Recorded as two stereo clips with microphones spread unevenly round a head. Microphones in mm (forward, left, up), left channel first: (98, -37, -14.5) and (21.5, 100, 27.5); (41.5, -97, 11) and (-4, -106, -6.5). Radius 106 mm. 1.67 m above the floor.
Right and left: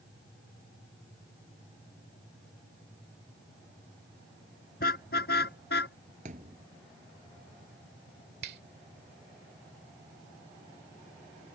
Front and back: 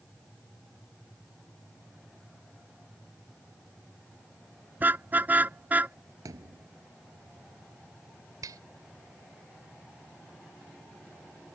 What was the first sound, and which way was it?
A car horn, 115° right.